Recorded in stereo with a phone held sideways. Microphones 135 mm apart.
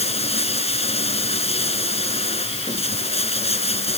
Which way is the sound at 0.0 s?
50° left (ahead or behind).